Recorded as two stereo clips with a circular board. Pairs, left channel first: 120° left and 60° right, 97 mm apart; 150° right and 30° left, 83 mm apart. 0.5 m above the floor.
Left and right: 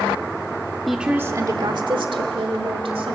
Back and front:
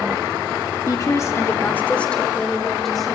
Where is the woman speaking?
155° right, 0.9 m; by 3.1 s 60° right, 2.5 m.